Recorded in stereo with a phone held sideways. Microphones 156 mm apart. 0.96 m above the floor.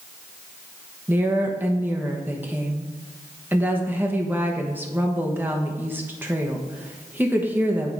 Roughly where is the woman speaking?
Centre.